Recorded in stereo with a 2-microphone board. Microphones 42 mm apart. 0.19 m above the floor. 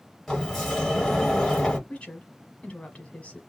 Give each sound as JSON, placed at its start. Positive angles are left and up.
{"t": 0.3, "sound": "a sliding door", "side_deg": 5, "distance_m": 1.2}
{"t": 1.9, "sound": "a woman speaking", "side_deg": 30, "distance_m": 1.1}